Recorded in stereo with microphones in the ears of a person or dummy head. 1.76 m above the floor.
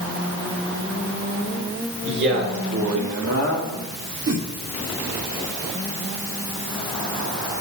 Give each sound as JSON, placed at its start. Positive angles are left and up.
{"t": 2.0, "sound": "a man speaking", "side_deg": -60, "distance_m": 2.0}
{"t": 4.3, "sound": "a whoosh", "side_deg": -55, "distance_m": 1.7}